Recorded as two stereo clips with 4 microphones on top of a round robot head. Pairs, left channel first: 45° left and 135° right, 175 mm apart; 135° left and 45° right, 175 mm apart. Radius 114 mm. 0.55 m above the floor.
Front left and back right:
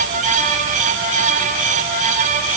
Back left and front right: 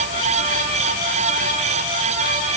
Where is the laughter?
I don't hear laughter.